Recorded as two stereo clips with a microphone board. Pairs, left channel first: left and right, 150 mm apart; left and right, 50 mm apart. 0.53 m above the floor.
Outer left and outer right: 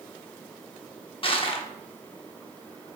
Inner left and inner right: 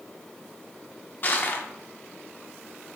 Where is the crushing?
40° left (ahead or behind), 0.8 m.